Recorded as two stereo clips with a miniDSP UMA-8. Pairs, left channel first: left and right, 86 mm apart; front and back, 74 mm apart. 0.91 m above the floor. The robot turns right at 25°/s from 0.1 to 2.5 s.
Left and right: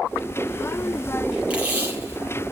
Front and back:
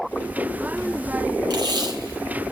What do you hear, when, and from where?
1.5 s tape being pulled: 170° right, 4.5 m; by 2.5 s 145° right, 4.5 m